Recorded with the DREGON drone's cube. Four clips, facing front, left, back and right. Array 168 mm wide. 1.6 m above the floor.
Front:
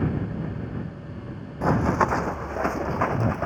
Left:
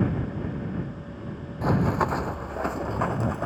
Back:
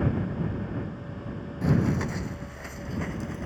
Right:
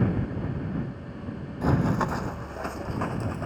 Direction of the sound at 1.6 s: 10° left.